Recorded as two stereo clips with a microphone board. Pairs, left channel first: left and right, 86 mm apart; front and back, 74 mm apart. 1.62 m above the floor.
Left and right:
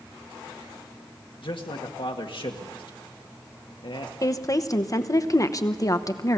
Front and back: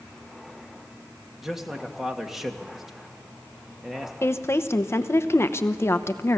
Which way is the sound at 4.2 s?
50° left.